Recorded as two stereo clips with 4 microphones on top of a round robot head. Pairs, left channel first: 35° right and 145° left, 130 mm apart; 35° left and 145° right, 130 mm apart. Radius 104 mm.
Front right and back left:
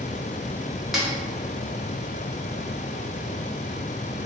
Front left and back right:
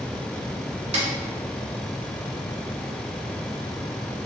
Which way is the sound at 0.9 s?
130° right.